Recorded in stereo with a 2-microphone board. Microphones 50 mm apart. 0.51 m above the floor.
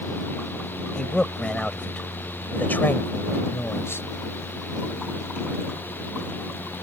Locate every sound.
0.9 s a man speaking: 15° left (ahead or behind); by 4.1 s 60° left (ahead or behind)